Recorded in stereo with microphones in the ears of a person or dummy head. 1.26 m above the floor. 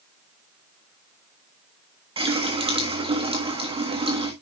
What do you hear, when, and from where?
2.2 s a running tap: 25° right (ahead or behind), 1.4 m